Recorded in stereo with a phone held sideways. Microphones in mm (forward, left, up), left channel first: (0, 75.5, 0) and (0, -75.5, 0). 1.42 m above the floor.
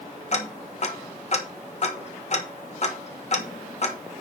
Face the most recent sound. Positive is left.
turn(degrees=50)  # may be behind; listen again after turning